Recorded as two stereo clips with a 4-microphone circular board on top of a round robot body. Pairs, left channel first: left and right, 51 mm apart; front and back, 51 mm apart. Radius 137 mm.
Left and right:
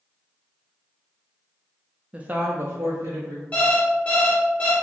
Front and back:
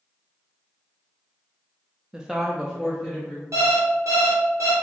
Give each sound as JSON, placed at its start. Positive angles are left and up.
{"t": 2.1, "sound": "a woman speaking", "azimuth_deg": -125, "distance_m": 0.6}
{"t": 3.5, "sound": "an alarm clock", "azimuth_deg": 155, "distance_m": 1.2}